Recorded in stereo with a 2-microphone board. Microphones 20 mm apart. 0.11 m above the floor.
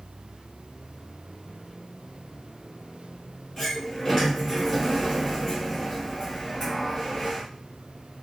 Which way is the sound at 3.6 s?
15° left (ahead or behind).